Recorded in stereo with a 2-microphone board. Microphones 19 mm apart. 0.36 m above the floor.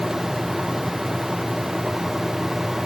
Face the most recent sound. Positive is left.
No sound to turn to.